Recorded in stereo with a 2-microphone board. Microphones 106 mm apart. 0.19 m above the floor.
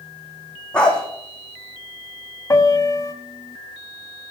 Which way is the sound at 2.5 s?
30° left (ahead or behind).